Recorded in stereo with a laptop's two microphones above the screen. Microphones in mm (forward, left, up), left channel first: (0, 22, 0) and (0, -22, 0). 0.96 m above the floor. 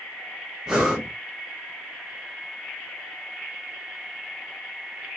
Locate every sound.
0.7 s breathing: 15° right (ahead or behind), 0.8 m